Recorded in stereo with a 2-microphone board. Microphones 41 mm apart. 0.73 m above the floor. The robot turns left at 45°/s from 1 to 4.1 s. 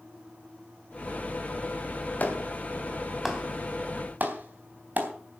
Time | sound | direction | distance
2.2 | a clap | 40° left (ahead or behind) | 3.5 m